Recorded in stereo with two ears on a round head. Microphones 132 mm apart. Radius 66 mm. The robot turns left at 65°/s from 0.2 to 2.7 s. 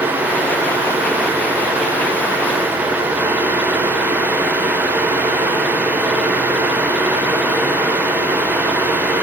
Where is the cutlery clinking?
No cutlery clinking in this recording.